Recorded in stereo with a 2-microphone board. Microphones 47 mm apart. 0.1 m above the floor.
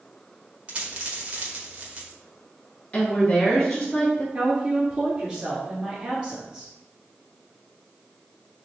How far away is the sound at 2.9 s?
About 1.2 m.